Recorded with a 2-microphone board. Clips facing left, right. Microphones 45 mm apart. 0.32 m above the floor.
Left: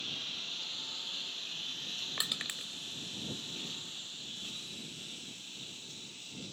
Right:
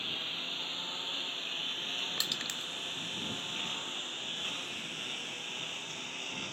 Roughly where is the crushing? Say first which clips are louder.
Right 2 dB; centre.